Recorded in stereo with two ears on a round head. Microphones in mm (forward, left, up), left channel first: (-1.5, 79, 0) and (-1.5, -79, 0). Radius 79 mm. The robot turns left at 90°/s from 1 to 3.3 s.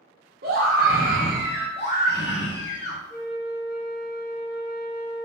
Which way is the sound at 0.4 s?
115° right.